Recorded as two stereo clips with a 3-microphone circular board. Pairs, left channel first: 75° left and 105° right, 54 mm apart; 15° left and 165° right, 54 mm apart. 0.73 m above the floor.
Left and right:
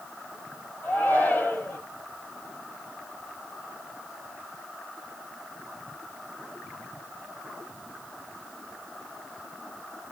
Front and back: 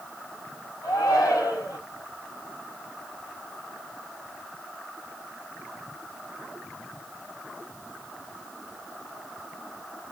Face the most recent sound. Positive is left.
turn(degrees=20)